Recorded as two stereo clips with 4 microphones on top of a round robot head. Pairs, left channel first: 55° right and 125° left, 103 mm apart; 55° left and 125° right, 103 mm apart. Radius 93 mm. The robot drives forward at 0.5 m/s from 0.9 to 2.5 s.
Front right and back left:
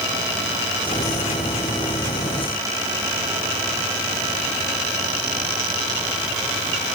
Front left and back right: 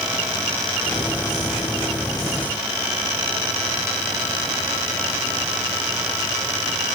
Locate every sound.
Only background noise.